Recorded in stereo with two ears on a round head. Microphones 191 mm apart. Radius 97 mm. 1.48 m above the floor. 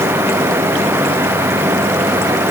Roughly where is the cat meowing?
I don't hear a cat meowing.